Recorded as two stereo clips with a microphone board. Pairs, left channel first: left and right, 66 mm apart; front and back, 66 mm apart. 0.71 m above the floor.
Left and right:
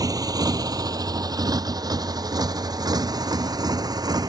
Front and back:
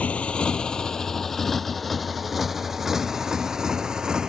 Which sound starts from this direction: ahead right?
A motorcycle, at 0.0 s.